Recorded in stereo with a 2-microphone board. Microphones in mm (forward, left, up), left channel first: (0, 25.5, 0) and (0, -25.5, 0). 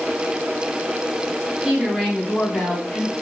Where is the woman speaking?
5° right (ahead or behind), 1.3 m; by 3.1 s 45° left (ahead or behind), 1.3 m.